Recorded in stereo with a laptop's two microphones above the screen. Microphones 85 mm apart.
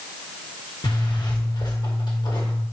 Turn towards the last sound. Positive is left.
turn(degrees=60)  # may be behind; listen again after turning